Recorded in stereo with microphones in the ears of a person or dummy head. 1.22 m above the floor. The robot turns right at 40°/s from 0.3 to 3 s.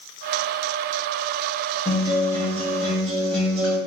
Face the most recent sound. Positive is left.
turn(degrees=-175)